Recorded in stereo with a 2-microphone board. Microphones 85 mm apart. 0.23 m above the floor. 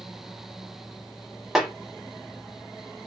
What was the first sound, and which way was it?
A snare drum, 5° right (ahead or behind).